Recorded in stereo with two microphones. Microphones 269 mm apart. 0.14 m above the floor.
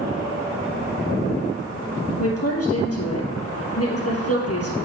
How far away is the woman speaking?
About 3.5 m.